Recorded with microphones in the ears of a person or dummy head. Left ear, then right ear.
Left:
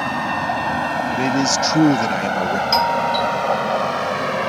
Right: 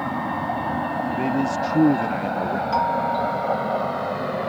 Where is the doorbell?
75° left (ahead or behind).